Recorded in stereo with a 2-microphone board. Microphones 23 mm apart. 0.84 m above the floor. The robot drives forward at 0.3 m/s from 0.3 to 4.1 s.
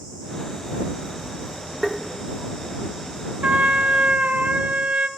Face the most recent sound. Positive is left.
turn(degrees=-80)